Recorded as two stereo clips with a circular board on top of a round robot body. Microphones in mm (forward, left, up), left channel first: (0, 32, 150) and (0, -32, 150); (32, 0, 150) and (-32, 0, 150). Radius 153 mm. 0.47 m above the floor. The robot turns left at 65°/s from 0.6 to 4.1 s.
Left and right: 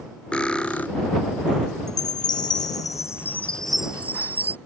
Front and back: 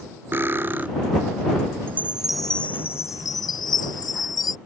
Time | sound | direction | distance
0.3 | cutlery clinking | 155° left | ?
1.9 | a chime | 120° left | ?